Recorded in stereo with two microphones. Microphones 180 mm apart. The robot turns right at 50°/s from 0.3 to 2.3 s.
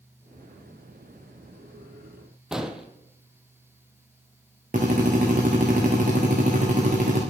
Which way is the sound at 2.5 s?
5° right (ahead or behind).